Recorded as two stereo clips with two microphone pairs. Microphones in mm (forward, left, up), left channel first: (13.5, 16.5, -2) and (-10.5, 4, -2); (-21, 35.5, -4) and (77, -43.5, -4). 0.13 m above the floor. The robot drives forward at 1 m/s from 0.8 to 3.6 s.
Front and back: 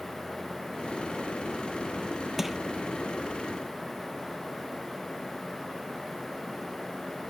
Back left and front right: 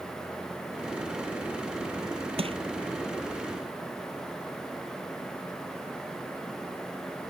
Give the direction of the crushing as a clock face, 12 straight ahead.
2 o'clock.